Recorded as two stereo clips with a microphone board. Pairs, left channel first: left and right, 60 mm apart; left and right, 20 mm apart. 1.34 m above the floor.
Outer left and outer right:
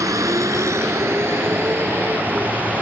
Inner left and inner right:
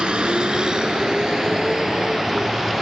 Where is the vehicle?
65° right (ahead or behind); by 2.8 s 25° right (ahead or behind).